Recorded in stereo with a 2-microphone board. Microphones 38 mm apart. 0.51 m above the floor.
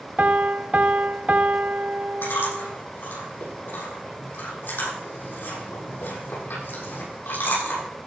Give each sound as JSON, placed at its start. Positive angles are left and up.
{"t": 0.2, "sound": "a piano", "side_deg": -45, "distance_m": 0.6}
{"t": 2.2, "sound": "chewing", "side_deg": 80, "distance_m": 8.5}